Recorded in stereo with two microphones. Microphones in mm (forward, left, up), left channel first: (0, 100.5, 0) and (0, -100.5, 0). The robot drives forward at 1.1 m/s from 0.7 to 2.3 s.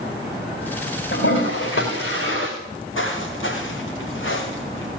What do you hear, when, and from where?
1.1 s a toilet flushing: 85° left, 5 m
2.6 s footsteps: 90° left, 7 m; by 4.9 s 80° left, 4.5 m